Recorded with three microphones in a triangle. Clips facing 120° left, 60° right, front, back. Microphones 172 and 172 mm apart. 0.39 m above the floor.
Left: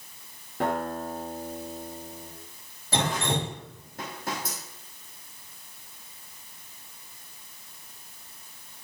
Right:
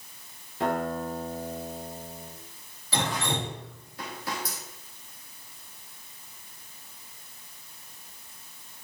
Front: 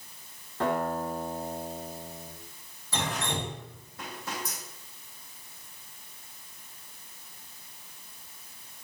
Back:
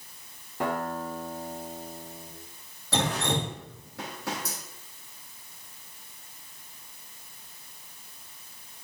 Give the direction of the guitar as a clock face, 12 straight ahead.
9 o'clock.